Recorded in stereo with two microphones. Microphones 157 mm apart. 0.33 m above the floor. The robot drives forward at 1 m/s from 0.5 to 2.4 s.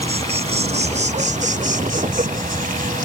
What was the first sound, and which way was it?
An insect, 45° right (ahead or behind).